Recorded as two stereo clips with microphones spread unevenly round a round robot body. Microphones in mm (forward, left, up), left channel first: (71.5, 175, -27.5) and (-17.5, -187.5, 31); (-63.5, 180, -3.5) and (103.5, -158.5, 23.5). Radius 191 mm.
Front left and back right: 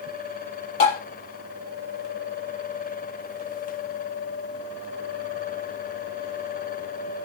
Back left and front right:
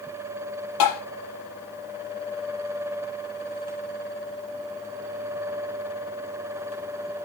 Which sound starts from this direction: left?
Tapping, at 0.8 s.